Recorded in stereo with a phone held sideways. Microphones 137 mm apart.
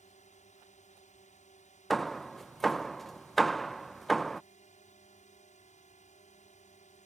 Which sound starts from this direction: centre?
Hammering, at 1.9 s.